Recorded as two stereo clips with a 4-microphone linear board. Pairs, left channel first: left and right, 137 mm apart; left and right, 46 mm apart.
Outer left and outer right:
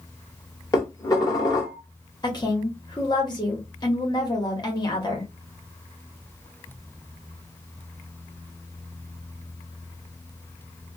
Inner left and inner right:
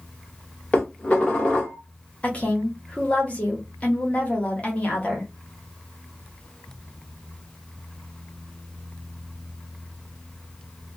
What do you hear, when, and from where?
0.7 s dishes clattering: 30° left (ahead or behind), 1.3 m
2.2 s a woman speaking: 35° left (ahead or behind), 1.3 m